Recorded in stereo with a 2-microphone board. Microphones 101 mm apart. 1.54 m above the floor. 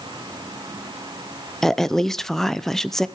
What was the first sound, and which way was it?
A woman speaking, 5° left (ahead or behind).